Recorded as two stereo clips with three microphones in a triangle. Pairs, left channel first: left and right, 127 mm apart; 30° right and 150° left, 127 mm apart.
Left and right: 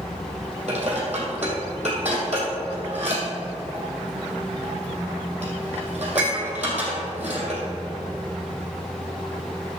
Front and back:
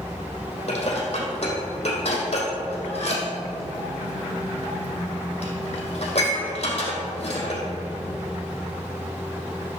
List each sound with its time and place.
0.7 s dishes clattering: 65° right, 3 m